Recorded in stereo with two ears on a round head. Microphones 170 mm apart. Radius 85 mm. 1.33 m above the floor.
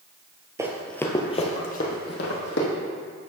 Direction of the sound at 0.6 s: 15° right (ahead or behind).